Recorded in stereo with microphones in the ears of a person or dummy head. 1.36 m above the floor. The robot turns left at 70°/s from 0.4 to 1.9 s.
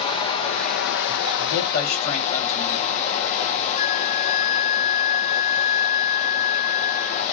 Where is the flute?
30° left (ahead or behind), 0.8 m.